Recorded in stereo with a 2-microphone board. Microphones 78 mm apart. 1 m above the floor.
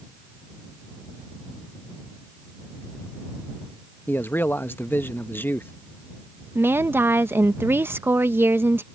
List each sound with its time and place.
4.1 s a man speaking: 25° left (ahead or behind)
6.5 s a woman speaking: 30° right (ahead or behind)